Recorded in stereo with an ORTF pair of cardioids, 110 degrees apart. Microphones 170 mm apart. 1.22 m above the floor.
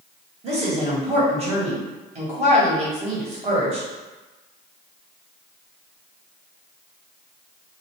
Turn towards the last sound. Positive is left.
turn(degrees=-40)